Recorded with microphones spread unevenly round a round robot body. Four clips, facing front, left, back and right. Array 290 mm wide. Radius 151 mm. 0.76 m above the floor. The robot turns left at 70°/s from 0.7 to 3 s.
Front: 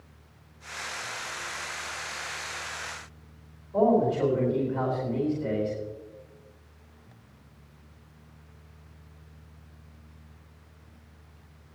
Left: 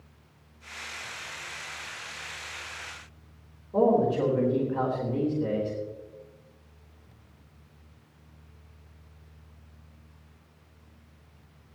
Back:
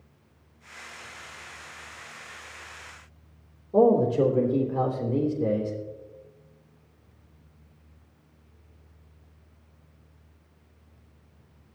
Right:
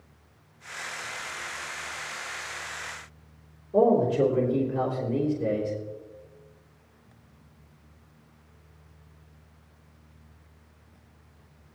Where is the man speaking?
170° right, 3 m.